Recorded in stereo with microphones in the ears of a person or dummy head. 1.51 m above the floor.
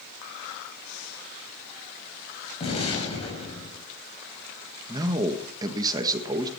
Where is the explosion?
35° left (ahead or behind), 5.5 m.